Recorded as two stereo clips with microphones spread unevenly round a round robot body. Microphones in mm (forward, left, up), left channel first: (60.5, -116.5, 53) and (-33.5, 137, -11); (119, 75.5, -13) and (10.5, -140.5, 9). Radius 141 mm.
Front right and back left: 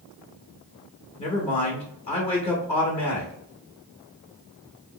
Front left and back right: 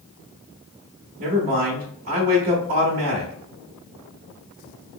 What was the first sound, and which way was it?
A man speaking, 145° right.